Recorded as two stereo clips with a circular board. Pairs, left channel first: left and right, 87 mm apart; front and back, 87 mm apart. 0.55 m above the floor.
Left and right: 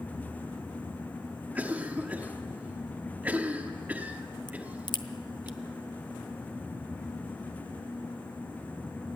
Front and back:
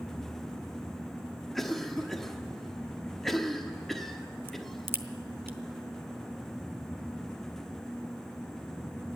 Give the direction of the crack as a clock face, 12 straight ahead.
8 o'clock.